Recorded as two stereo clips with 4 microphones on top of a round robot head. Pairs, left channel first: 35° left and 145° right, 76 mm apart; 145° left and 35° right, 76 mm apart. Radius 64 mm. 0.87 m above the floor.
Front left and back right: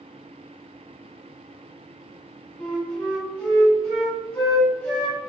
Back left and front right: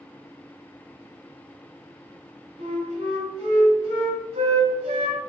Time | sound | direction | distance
2.6 | a flute | 35° right | 0.9 m